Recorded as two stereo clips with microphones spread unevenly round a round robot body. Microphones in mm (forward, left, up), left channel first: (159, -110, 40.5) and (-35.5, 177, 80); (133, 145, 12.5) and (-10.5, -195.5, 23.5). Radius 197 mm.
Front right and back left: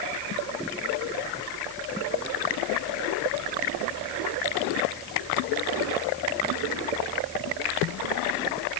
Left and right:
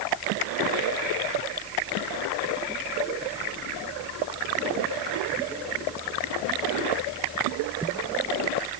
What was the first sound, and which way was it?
Only background noise.